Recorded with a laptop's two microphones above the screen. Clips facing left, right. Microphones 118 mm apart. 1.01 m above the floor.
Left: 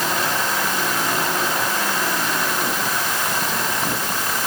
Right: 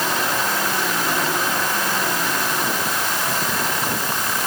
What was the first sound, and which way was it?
Only background noise.